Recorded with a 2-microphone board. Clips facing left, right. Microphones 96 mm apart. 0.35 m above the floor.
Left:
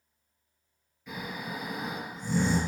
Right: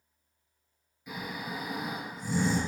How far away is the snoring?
About 2.0 m.